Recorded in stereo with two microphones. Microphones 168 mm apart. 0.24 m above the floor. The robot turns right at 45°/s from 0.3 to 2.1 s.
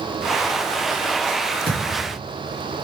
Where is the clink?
No clink in this recording.